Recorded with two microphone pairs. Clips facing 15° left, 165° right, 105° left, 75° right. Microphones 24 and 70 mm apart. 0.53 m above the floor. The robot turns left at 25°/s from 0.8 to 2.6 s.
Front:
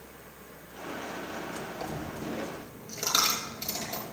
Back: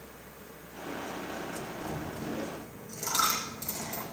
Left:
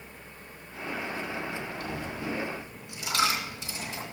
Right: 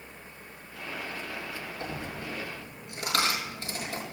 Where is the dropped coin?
10° right, 6 m; by 4.1 s 30° right, 6 m.